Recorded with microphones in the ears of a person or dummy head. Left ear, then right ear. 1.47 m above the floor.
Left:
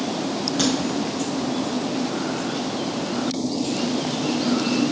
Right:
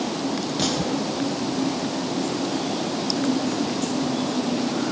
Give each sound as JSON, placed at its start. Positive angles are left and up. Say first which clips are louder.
{"t": 0.6, "sound": "a crack", "louder": "left 3 dB", "side_deg": 40, "distance_m": 1.7}